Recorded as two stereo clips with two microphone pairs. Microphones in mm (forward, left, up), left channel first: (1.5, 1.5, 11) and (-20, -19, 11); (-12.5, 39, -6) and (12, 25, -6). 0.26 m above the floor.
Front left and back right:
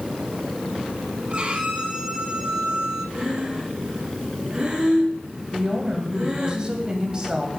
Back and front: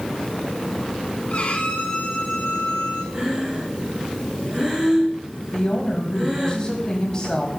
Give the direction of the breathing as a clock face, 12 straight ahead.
3 o'clock.